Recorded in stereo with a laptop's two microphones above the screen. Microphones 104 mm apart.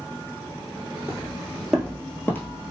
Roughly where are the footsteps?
Centre.